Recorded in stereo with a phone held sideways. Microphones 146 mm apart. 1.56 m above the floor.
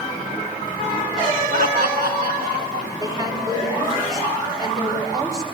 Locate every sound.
1.5 s laughter: 70° right (ahead or behind), 1.9 m; by 2.9 s 85° right, 3.5 m
3.0 s a woman speaking: 25° right (ahead or behind), 5 m